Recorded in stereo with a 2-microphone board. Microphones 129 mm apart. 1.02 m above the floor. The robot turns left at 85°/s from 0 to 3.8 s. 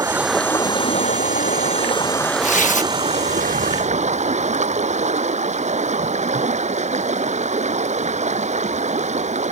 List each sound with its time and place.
0.0 s running water: 150° right; by 9.5 s 115° right
2.4 s tearing paper: 110° left; by 2.9 s 70° left